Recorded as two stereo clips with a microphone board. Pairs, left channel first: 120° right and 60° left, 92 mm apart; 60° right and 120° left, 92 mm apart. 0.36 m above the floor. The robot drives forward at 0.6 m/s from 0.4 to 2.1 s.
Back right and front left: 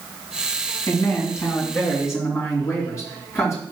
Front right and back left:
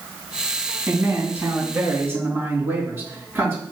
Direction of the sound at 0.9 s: 175° right.